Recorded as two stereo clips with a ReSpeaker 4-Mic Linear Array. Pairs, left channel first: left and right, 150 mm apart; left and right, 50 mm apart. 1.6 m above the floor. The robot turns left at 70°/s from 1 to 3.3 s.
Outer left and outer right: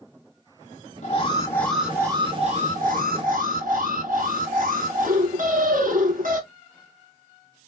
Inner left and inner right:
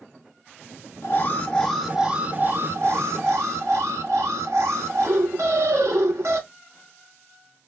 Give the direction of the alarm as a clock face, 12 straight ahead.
10 o'clock.